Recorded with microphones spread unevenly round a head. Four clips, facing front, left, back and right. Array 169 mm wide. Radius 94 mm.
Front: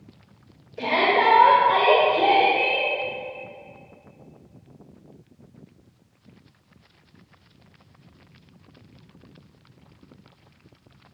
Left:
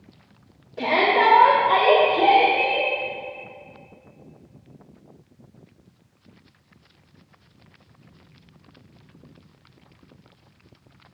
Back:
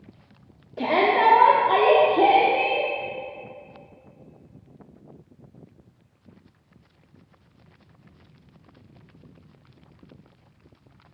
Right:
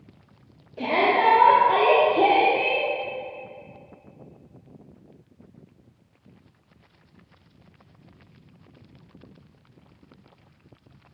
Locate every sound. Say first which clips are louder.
0.8 s a shout: left 2 dB, back 1 dB; 170° right, 2 m; by 2.9 s 140° right, 3 m